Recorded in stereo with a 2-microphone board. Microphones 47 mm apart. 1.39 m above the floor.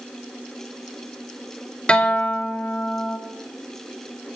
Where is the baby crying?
I don't hear a baby crying.